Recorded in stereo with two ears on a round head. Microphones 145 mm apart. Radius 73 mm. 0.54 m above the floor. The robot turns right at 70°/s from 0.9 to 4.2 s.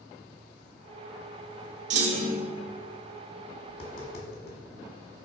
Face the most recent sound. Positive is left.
turn(degrees=60)  # may be behind; listen again after turning